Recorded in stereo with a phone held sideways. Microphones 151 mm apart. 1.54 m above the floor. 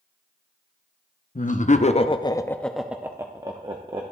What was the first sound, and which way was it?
Laughter, 60° left (ahead or behind).